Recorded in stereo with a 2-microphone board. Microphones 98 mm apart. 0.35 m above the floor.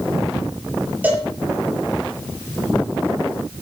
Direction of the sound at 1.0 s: 20° right (ahead or behind).